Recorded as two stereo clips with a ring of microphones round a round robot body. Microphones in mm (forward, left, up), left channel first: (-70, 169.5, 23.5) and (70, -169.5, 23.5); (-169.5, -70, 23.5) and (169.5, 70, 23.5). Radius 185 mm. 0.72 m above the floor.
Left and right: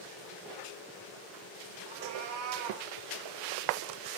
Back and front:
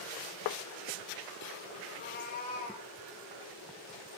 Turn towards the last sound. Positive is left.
turn(degrees=-90)